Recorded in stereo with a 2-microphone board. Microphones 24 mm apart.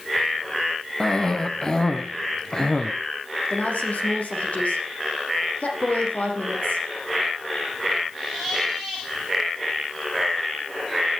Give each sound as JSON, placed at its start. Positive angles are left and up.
{"t": 1.0, "sound": "a cough", "side_deg": 30, "distance_m": 1.2}
{"t": 3.5, "sound": "a woman speaking", "side_deg": 80, "distance_m": 8.5}